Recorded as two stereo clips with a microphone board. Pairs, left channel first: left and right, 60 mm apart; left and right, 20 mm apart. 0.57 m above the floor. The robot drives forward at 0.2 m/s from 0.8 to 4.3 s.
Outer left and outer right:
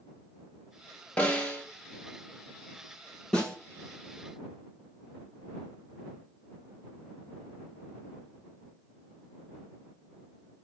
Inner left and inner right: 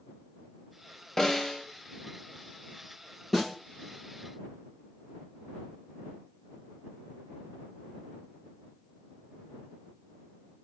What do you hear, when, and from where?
1.2 s a snare drum: 20° left (ahead or behind), 1.1 m
3.3 s a snare drum: 15° left (ahead or behind), 2 m